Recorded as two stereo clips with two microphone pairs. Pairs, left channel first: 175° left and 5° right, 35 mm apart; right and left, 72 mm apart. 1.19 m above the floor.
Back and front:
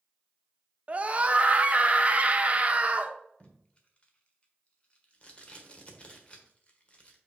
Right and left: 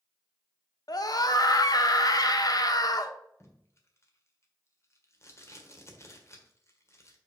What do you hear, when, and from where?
0.9 s a scream: 60° right, 0.9 m
3.4 s tape being pulled: 135° right, 1.4 m